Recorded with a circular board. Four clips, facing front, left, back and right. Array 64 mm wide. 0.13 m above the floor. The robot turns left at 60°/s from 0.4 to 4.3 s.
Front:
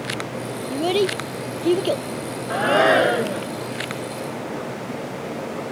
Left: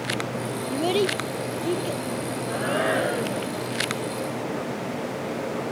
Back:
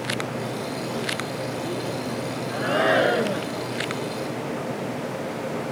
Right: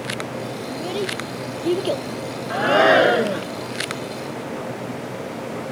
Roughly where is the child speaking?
Ahead left.